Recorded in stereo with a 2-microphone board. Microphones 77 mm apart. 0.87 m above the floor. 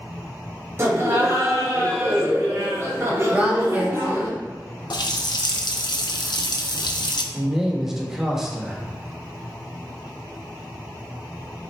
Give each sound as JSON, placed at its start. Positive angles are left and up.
{"t": 0.8, "sound": "laughter", "side_deg": -35, "distance_m": 1.4}
{"t": 3.3, "sound": "a woman speaking", "side_deg": -20, "distance_m": 1.2}
{"t": 4.9, "sound": "a running tap", "side_deg": 70, "distance_m": 0.5}
{"t": 7.3, "sound": "a man speaking", "side_deg": -5, "distance_m": 1.0}